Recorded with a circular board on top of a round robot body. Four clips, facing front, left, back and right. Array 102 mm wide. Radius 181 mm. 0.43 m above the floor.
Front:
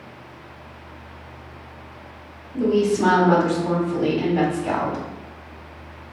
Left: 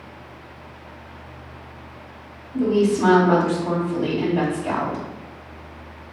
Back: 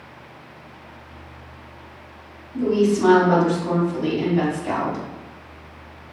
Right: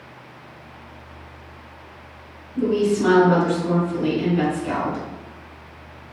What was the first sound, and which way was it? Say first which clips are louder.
A woman speaking: left 1 dB, even; 35° left.